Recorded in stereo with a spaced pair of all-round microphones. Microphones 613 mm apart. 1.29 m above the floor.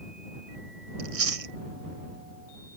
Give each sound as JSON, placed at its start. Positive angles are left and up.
{"t": 1.0, "sound": "chewing", "side_deg": -65}